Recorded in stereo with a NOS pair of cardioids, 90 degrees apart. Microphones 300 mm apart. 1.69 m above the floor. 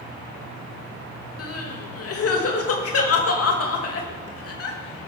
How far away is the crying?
About 3 m.